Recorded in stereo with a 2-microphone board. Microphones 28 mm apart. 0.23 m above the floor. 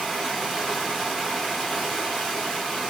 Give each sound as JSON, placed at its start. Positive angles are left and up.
{"t": 0.0, "sound": "running water", "side_deg": -5, "distance_m": 1.0}